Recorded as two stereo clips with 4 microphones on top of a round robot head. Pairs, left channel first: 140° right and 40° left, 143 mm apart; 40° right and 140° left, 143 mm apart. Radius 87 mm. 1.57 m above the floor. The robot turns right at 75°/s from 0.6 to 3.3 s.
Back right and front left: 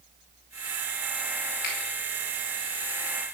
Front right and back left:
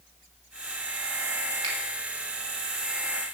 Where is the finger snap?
160° right, 4.5 m; by 1.8 s 150° right, 4.5 m.